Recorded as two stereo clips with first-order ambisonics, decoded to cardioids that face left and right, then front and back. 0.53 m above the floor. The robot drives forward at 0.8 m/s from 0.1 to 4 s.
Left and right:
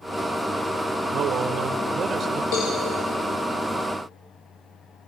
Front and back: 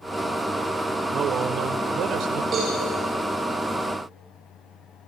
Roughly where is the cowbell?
Behind left.